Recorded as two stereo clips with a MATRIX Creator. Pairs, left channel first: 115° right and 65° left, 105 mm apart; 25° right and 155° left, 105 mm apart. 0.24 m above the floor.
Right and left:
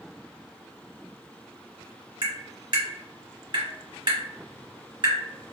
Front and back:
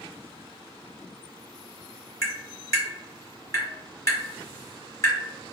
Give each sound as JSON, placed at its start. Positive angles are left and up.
{"t": 2.2, "sound": "tapping", "azimuth_deg": 30, "distance_m": 1.9}